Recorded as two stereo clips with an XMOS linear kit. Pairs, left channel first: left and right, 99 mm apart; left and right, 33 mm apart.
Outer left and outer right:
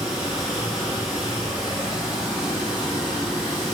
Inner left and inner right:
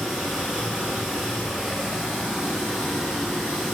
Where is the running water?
5° right (ahead or behind), 1.4 m.